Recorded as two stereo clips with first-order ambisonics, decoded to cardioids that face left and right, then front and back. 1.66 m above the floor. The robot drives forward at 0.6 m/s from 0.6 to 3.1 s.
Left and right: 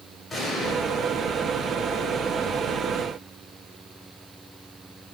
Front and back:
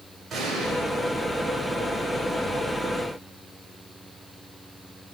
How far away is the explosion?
About 1.5 m.